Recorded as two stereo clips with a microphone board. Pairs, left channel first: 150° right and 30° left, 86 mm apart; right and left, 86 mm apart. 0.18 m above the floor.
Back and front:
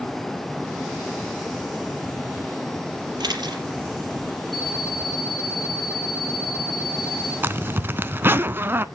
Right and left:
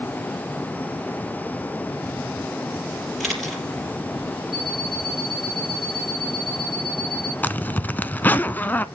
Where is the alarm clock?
Straight ahead, 4.5 m.